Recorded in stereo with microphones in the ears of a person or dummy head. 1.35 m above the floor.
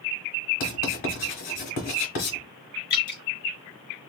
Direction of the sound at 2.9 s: 50° left (ahead or behind).